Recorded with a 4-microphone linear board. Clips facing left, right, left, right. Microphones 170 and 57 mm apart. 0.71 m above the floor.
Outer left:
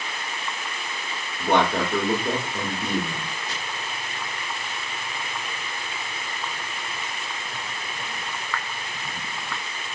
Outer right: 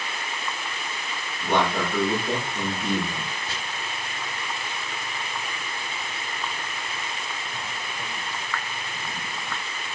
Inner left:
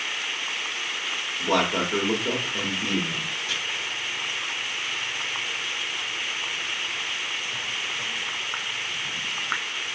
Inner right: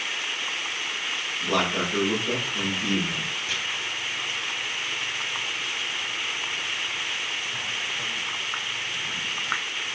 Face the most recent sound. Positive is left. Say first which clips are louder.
# even, even
turn(degrees=-30)  # may be behind; listen again after turning